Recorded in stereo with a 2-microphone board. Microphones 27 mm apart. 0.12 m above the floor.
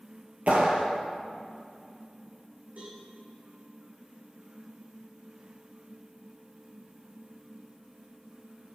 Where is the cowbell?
85° right, 5 m.